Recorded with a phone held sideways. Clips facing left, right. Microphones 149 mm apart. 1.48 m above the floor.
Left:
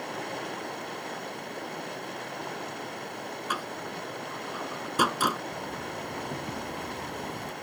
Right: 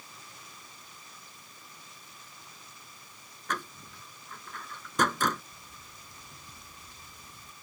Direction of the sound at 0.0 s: 70° left (ahead or behind).